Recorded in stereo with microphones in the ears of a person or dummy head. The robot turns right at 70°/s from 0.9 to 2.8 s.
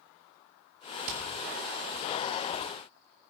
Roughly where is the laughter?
No laughter in this recording.